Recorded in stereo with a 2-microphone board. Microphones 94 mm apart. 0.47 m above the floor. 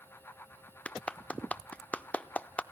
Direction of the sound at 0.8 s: 15° left (ahead or behind).